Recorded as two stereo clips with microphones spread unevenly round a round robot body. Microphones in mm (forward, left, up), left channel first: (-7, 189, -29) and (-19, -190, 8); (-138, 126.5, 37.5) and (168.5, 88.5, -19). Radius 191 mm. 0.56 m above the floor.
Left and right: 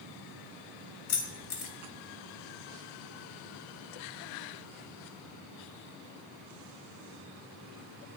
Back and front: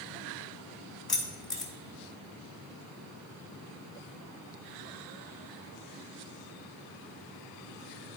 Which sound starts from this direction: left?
Keys jangling, at 1.1 s.